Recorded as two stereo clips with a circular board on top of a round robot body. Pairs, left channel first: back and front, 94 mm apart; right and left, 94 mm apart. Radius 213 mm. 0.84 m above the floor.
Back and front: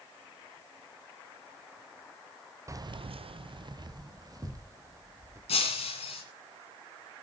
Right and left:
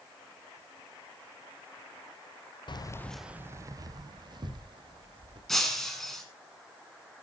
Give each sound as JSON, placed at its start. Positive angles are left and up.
{"t": 2.7, "sound": "keys jangling", "azimuth_deg": -55, "distance_m": 0.6}
{"t": 5.5, "sound": "breaking glass", "azimuth_deg": -175, "distance_m": 2.0}